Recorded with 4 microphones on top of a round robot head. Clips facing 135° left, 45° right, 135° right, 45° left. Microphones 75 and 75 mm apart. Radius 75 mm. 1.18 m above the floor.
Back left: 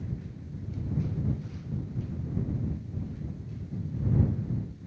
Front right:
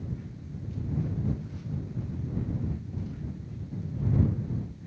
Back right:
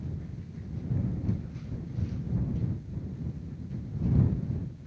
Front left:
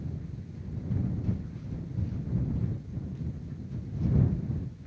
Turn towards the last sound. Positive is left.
No sound to turn to.